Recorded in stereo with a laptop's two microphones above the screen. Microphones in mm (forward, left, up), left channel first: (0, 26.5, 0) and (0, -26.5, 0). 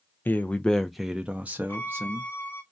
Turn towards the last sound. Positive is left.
turn(degrees=35)  # may be behind; listen again after turning